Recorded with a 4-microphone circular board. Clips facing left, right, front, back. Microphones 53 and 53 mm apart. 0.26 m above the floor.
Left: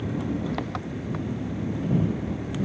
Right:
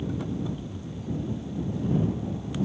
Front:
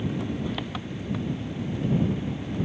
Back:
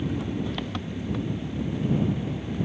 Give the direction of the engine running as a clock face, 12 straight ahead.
9 o'clock.